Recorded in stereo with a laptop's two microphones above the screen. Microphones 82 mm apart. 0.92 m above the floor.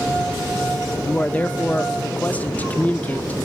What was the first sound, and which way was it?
A man speaking, 20° left (ahead or behind).